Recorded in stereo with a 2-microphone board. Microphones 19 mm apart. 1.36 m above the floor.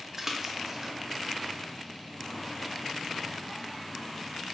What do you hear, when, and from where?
0.2 s a splash: 25° right (ahead or behind), 0.6 m